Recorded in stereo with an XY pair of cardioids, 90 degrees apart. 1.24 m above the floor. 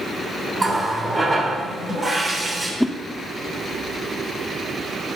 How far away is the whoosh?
About 0.8 m.